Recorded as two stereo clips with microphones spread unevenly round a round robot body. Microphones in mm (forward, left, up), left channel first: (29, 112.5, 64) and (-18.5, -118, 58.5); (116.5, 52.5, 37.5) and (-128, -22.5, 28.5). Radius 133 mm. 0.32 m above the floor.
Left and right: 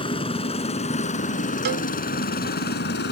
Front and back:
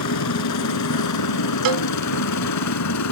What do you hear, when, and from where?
0.0 s a helicopter: 10° left; by 3.1 s 35° left
1.6 s a cowbell: 150° right